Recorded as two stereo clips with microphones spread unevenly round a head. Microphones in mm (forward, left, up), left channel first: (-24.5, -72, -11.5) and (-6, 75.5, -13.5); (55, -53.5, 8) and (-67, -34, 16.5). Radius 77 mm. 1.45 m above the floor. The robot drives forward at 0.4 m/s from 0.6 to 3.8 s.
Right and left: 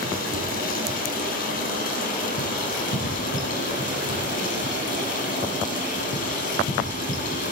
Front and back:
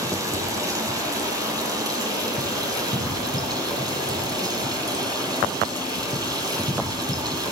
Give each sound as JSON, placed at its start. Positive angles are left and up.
{"t": 0.0, "sound": "running water", "azimuth_deg": -125, "distance_m": 10.0}